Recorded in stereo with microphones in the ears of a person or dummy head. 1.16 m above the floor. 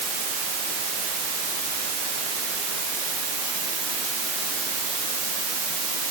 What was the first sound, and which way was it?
Only background noise.